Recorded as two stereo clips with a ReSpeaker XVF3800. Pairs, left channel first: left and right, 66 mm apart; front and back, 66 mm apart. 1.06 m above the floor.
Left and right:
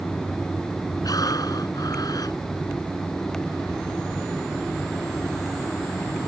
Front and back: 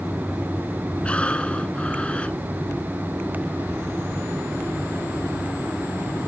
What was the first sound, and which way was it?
Breathing, 75° left.